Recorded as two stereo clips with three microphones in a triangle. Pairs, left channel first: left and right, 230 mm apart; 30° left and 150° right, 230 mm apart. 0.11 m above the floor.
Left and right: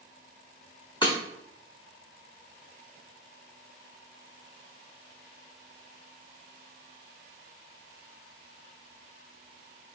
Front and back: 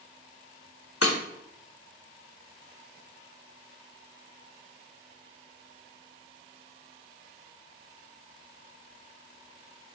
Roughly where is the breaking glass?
Ahead.